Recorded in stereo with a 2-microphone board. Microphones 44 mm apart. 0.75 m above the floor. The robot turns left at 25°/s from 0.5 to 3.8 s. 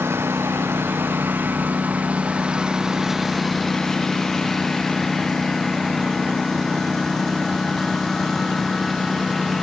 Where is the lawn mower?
70° right (ahead or behind); by 9.6 s 5° left (ahead or behind).